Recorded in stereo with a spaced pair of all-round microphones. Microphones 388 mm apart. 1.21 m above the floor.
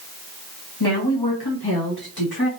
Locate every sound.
0.8 s a woman speaking: 75° left (ahead or behind), 1.3 m; by 2.5 s 60° left (ahead or behind), 2 m